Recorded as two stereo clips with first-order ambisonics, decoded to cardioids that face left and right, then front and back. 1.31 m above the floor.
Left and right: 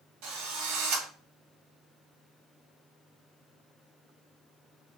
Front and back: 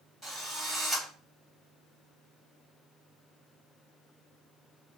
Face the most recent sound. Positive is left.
turn(degrees=-90)